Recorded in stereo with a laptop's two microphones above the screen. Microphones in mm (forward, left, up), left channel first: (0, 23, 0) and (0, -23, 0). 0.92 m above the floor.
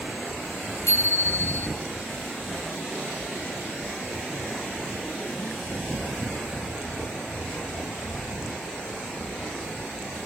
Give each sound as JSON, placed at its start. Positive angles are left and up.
{"t": 0.9, "sound": "a bicycle bell", "side_deg": 85, "distance_m": 8.0}